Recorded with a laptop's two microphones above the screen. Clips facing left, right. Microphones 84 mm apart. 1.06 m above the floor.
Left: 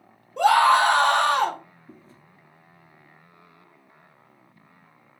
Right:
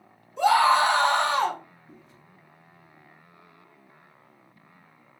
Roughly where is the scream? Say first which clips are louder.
Left 2 dB; left.